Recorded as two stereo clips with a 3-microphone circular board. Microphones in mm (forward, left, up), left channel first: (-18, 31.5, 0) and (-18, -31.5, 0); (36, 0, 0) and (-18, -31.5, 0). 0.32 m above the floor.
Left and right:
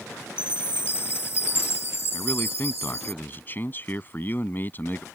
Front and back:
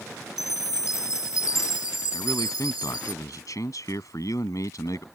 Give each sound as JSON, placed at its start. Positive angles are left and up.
{"t": 0.4, "sound": "a chime", "azimuth_deg": 45}
{"t": 2.1, "sound": "a man speaking", "azimuth_deg": 35}